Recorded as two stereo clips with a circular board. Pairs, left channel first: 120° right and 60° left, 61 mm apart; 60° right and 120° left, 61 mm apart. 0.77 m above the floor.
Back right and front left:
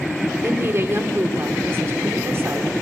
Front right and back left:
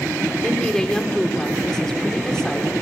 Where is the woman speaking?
20° left, 2.5 m.